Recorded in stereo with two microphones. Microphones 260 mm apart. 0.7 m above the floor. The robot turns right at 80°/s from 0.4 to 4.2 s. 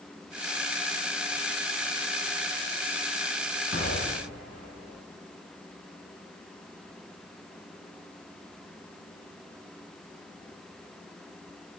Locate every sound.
3.7 s an explosion: 60° left (ahead or behind), 6 m; by 5.0 s 80° left, 6 m